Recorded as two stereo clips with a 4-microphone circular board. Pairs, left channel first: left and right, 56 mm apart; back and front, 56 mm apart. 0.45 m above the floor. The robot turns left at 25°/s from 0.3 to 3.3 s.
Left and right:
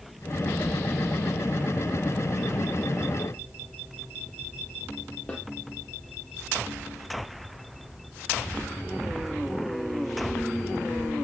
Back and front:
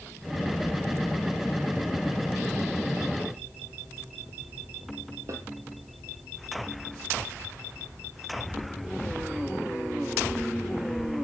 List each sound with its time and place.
5.3 s a snare drum: 25° left, 6 m